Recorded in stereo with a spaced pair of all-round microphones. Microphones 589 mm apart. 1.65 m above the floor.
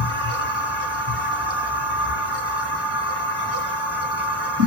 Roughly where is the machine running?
Right.